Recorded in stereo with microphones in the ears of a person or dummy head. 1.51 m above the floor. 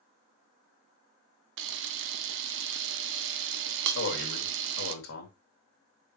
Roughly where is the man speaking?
Left.